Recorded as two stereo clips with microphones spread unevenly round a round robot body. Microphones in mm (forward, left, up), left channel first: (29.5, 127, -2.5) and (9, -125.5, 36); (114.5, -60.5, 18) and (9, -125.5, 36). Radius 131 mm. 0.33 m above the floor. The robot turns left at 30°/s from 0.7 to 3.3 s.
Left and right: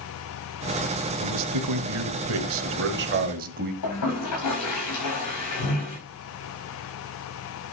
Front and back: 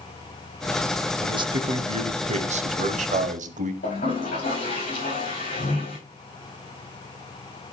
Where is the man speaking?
90° right, 1.6 m; by 3.7 s 155° right, 1.6 m.